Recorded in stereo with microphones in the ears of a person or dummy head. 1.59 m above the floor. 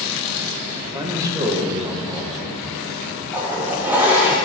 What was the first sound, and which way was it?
A man speaking, 15° right (ahead or behind).